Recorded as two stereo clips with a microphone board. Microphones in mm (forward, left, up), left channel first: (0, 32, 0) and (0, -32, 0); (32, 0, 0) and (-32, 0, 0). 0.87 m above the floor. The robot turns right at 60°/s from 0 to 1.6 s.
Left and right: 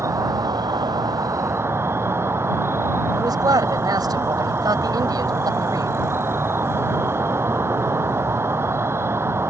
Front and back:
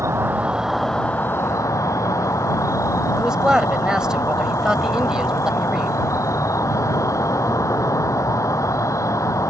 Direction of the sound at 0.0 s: 135° right.